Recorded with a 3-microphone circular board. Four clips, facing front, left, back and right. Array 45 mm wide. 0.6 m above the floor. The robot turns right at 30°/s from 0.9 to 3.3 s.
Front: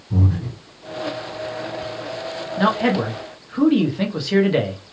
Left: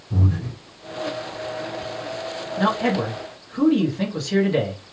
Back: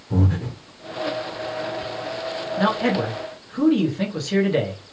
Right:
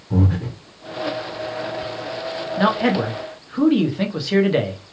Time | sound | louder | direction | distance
0.1 | breathing | right 4 dB, even | 125° right | 1.0 m
2.6 | a man speaking | right 3 dB, front 3 dB | 70° right | 0.8 m